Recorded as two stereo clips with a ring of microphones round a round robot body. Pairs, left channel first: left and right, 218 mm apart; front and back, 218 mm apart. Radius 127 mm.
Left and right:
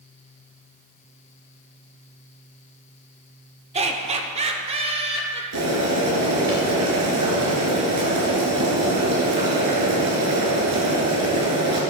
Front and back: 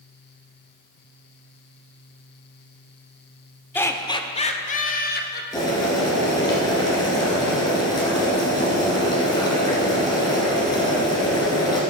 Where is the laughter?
70° right, 0.9 m; by 5.4 s 30° right, 1.4 m.